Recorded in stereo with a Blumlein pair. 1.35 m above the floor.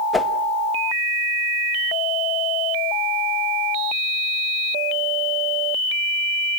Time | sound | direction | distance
0.1 | a whoosh | 10° left | 1.3 m